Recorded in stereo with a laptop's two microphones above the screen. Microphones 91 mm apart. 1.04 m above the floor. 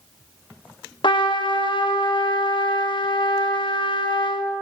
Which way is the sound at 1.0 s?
65° left (ahead or behind).